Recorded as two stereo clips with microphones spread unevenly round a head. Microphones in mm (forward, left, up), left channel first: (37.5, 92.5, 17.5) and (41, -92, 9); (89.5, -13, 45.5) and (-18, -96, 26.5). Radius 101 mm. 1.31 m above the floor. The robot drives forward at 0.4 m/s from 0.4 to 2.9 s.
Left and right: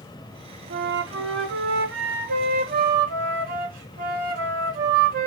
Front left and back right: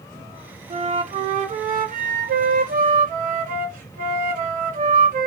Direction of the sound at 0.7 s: 110° right.